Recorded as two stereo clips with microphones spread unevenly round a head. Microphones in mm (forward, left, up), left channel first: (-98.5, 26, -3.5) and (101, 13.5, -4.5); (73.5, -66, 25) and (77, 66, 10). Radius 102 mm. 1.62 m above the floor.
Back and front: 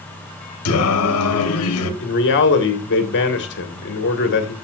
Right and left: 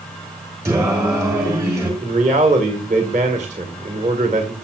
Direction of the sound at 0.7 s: 165° left.